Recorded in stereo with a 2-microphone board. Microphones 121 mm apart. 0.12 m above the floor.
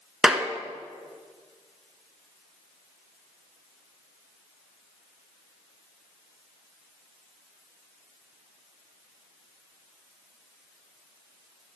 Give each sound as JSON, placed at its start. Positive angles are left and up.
{"t": 0.2, "sound": "a clap", "side_deg": -10, "distance_m": 1.3}